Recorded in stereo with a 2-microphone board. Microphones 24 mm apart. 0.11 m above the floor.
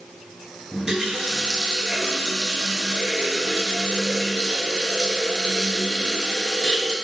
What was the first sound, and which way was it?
A running tap, 25° right (ahead or behind).